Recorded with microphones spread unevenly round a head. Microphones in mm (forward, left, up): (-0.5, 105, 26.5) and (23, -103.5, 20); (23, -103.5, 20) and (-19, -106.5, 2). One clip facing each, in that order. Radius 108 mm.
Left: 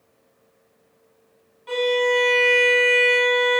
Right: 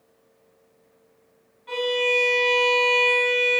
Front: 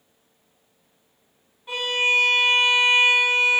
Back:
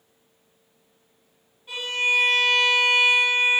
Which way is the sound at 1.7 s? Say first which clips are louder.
Left 4 dB, front 2 dB; 65° left.